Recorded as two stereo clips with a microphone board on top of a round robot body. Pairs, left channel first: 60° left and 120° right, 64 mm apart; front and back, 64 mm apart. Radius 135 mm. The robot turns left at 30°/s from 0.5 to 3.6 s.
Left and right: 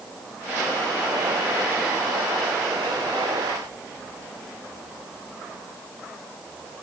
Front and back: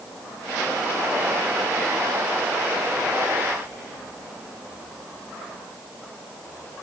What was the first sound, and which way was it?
Only background noise.